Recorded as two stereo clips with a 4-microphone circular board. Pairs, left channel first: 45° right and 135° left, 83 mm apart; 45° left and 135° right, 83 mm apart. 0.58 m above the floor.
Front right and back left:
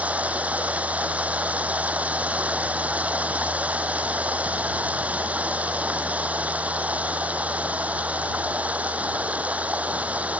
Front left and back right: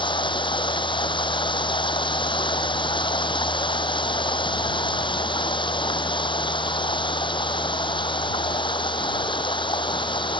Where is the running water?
60° left.